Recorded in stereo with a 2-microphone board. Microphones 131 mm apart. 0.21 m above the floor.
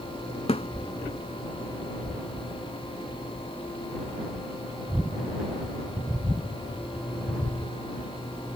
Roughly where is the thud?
Left.